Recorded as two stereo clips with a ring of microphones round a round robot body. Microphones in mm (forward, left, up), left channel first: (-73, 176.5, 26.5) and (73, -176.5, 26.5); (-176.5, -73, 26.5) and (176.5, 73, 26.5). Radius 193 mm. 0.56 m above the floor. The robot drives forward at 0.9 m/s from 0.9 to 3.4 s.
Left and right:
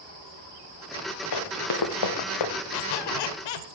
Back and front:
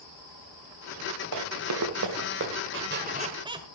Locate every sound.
1.3 s running footsteps: 70° left, 4.5 m; by 2.5 s 85° left, 3 m
2.7 s a squeak: 80° left, 1.7 m; by 3.7 s 100° left, 1.7 m